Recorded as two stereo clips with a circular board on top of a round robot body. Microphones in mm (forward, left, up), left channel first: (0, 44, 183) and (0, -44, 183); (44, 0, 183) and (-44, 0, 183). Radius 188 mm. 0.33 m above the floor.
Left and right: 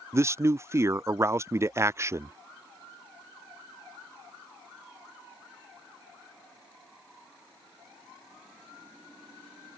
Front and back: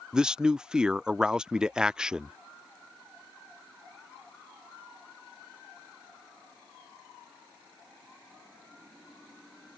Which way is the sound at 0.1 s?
105° right.